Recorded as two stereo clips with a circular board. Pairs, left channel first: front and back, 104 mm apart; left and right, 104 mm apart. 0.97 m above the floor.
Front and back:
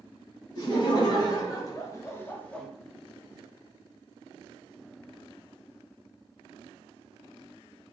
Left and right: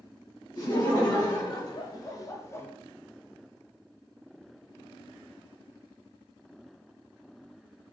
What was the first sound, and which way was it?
Laughter, 45° left.